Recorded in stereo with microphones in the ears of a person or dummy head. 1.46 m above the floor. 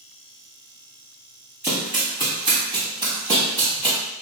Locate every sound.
1.6 s running footsteps: 10° right (ahead or behind), 1.9 m; by 4.0 s 20° right (ahead or behind), 3 m